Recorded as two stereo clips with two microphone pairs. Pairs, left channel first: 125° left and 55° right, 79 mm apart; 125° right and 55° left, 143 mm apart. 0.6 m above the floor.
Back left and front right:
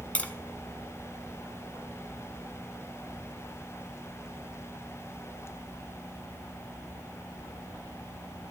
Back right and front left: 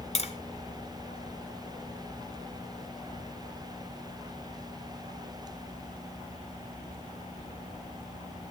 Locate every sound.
0.1 s tapping: 165° right, 1.5 m